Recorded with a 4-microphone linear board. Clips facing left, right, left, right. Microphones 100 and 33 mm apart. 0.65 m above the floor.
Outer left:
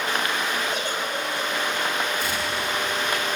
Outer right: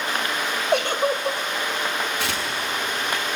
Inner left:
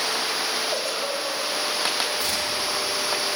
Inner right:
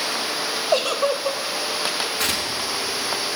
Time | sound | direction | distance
0.7 | a giggle | 65° right (ahead or behind) | 1.4 m
2.2 | tearing paper | 85° right | 5 m